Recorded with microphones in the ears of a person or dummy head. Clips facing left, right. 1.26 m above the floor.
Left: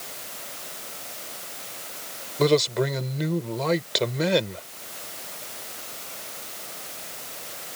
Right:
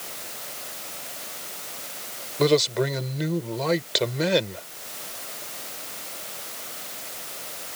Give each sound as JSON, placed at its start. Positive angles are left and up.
{"t": 2.4, "sound": "a man speaking", "side_deg": -5}